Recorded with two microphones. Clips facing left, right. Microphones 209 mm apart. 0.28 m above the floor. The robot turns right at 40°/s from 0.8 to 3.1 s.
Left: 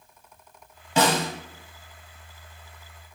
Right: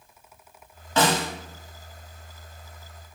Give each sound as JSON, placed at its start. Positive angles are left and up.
{"t": 1.0, "sound": "a snare drum", "side_deg": 15, "distance_m": 0.9}